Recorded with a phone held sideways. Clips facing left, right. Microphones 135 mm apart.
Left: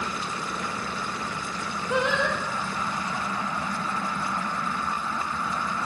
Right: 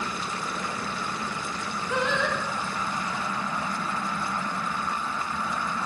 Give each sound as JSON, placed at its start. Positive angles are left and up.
{"t": 1.9, "sound": "singing", "side_deg": 20, "distance_m": 3.0}